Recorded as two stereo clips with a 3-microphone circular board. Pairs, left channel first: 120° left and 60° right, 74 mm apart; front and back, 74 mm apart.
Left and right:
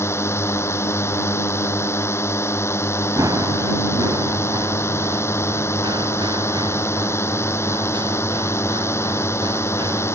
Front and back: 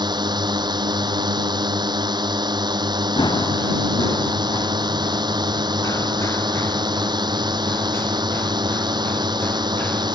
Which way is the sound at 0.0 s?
170° left.